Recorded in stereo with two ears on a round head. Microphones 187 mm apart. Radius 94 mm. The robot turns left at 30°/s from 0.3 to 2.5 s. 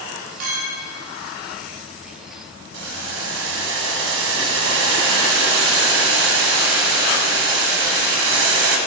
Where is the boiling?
55° right (ahead or behind), 1.0 m.